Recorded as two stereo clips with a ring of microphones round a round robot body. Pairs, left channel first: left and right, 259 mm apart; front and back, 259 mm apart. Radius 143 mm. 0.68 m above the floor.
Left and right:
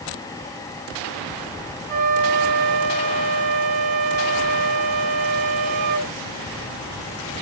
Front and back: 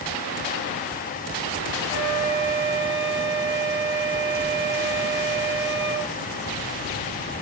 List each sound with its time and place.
1.9 s a flute: 105° right, 3 m